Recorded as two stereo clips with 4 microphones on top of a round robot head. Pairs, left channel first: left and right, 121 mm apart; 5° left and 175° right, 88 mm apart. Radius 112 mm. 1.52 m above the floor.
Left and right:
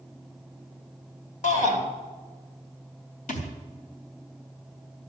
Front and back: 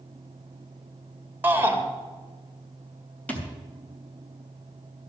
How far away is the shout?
About 3 m.